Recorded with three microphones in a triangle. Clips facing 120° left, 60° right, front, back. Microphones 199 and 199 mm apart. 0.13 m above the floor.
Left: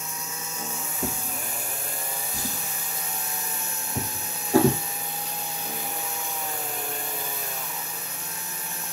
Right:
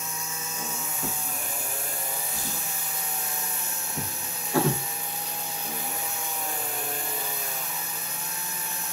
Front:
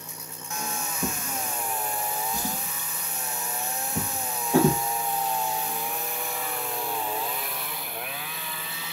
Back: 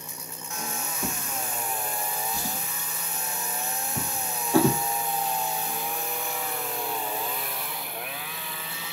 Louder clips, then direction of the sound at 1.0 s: Left 5 dB, front 3 dB; 75° left.